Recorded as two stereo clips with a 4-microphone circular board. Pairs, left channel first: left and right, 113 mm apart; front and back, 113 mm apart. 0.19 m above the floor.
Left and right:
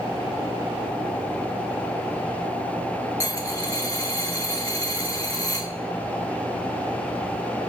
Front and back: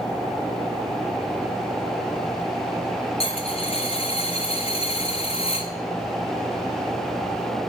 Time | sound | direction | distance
3.2 | a dropped coin | 30° left | 1.1 m